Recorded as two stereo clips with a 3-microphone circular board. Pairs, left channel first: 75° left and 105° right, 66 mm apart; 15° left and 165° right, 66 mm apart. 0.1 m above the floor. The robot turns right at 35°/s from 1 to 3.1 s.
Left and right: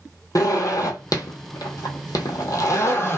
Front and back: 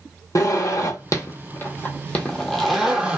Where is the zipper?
45° left, 0.7 m; by 3.2 s 120° left, 0.7 m.